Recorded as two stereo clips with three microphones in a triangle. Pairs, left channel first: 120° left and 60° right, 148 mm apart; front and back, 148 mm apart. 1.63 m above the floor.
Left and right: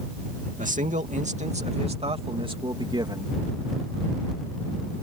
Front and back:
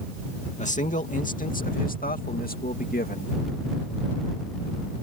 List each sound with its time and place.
0.6 s a man speaking: 35° right; by 3.4 s 5° left